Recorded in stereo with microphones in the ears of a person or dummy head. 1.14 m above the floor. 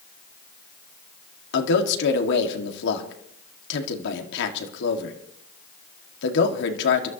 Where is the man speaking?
75° left (ahead or behind), 2.0 m.